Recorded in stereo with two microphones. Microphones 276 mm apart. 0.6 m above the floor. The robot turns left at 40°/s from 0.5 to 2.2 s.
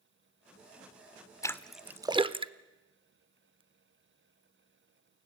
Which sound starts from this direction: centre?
A splash, at 1.4 s.